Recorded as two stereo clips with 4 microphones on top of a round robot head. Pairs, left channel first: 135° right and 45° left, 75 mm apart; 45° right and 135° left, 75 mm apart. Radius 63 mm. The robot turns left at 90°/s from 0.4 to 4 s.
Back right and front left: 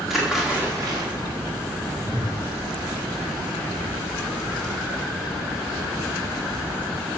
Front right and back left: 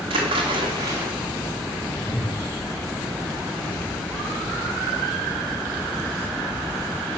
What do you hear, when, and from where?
0.1 s a splash: 130° left, 2 m; by 1.1 s 65° left, 2 m
2.0 s a whoosh: 115° right, 1.4 m; by 2.4 s 155° right, 1.4 m